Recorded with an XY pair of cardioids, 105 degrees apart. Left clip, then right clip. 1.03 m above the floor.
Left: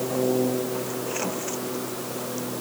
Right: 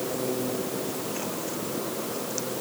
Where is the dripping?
I don't hear dripping.